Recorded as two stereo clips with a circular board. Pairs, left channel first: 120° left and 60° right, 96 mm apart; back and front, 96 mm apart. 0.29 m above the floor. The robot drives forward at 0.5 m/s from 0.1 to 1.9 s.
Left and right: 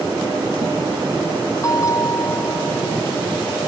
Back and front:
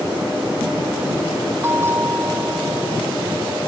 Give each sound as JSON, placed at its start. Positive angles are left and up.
{"t": 1.6, "sound": "a bell", "azimuth_deg": 65}